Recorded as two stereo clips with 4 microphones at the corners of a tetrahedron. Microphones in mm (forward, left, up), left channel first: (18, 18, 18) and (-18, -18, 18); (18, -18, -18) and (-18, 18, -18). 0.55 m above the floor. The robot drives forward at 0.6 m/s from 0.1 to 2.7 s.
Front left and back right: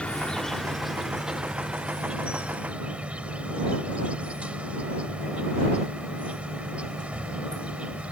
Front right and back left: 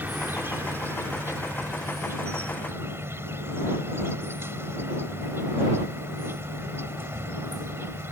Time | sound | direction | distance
0.0 | an insect | 105° left | ?